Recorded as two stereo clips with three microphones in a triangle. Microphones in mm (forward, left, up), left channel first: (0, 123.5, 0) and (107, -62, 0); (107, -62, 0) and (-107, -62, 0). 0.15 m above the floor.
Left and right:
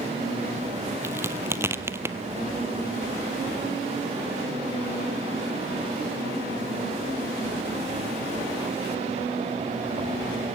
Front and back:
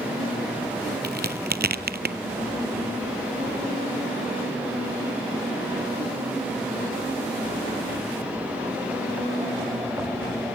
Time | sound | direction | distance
1.0 | a crack | 135° right | 0.9 m